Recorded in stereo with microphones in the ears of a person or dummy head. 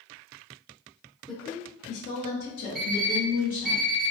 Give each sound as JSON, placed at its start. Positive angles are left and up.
{"t": 1.3, "sound": "a woman speaking", "side_deg": 5, "distance_m": 0.6}
{"t": 2.8, "sound": "an alarm clock", "side_deg": 0, "distance_m": 1.1}